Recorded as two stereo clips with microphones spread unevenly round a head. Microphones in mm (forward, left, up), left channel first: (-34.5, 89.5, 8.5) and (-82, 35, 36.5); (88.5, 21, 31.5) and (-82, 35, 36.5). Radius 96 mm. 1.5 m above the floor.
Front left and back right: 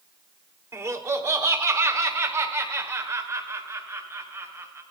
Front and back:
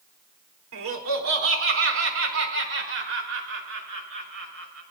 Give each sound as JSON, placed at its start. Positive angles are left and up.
{"t": 0.7, "sound": "laughter", "azimuth_deg": -175, "distance_m": 3.5}